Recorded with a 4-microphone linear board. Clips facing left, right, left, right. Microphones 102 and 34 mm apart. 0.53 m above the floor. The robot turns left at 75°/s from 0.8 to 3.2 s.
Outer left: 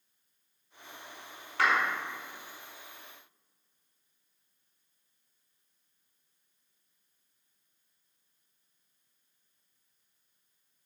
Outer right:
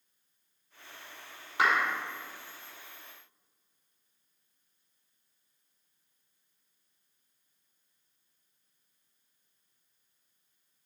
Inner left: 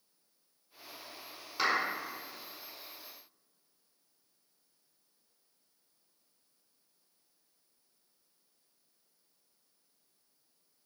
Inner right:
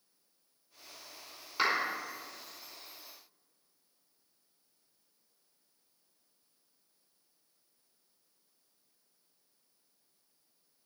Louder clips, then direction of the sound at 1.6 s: Even, even; 15° right (ahead or behind).